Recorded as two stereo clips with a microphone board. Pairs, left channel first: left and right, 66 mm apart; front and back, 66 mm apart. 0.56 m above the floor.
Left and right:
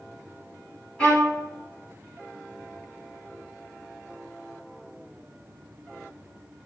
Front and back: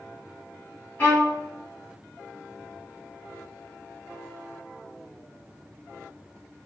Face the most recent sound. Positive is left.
turn(degrees=20)